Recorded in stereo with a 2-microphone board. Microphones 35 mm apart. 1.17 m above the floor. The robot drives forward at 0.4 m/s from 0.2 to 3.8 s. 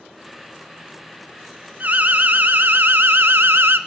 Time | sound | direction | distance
1.8 | an alarm | 50° right (ahead or behind) | 1.1 m